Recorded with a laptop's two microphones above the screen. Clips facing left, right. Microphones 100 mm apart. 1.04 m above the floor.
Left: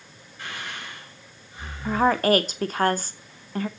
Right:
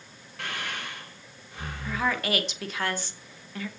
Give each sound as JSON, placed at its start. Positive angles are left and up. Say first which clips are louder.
{"t": 0.4, "sound": "breathing", "louder": "right 1 dB", "side_deg": -75, "distance_m": 4.0}
{"t": 1.9, "sound": "a woman speaking", "louder": "left 9 dB", "side_deg": 45, "distance_m": 0.7}